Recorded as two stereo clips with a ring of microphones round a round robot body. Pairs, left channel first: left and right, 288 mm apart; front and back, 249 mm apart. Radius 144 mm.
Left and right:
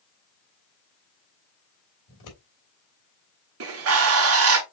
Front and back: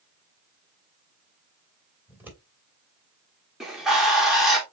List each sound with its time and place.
2.1 s scissors: 100° left, 3 m
3.6 s a bird: 90° right, 1.1 m